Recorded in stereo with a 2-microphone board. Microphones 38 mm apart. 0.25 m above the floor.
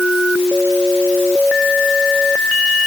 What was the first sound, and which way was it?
Only background noise.